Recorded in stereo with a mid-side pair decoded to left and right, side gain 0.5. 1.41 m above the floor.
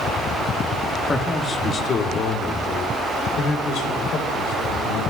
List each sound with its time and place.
1.1 s a man speaking: 35° left, 2.5 m; by 5.0 s 80° left, 6.5 m